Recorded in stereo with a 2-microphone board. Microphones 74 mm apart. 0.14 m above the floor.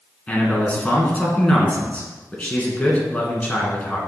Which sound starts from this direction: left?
A man speaking, at 0.3 s.